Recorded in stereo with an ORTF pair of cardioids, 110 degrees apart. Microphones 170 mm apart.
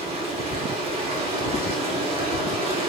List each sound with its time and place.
0.0 s running water: 35° right, 2.5 m